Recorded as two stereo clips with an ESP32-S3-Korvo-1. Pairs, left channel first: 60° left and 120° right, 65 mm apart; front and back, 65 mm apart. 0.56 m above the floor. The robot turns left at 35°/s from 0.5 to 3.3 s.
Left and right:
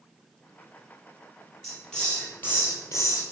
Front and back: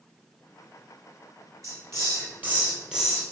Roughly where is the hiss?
Behind left.